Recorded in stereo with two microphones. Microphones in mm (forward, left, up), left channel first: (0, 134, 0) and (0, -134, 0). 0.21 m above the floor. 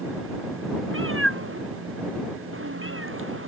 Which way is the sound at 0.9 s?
50° right (ahead or behind).